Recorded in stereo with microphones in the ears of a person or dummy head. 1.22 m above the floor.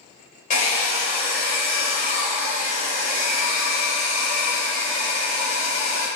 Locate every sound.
0.5 s a hair dryer: 50° left (ahead or behind), 1.0 m